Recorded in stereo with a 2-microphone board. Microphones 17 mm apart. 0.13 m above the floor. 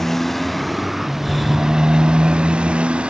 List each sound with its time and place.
0.0 s a motorcycle: 15° left (ahead or behind); by 3.1 s 80° right
1.2 s breathing: 10° left (ahead or behind)